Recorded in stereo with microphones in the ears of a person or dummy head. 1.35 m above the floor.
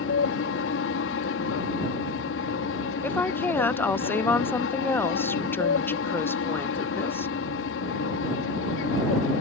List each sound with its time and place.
0.0 s an aircraft: 60° left (ahead or behind)
3.0 s a woman speaking: 5° left (ahead or behind)